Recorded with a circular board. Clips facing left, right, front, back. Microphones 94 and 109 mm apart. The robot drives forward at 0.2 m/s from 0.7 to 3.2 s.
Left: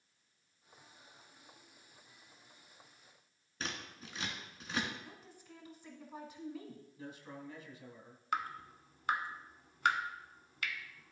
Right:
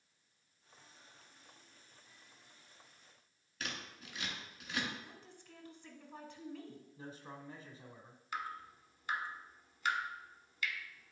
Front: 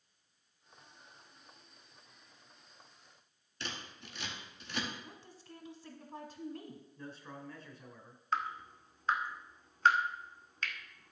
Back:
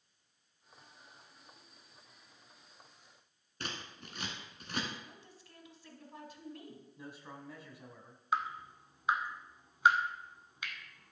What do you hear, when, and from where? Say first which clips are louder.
3.6 s scissors: left 2 dB, back 1 dB; 145° left, 1.4 m
5.0 s a woman speaking: left 2 dB, front 3 dB; 20° left, 1.2 m
7.0 s a man speaking: left 1 dB, front 2 dB; 110° right, 1.1 m
8.3 s dripping: left 5 dB, back 1 dB; 105° left, 0.8 m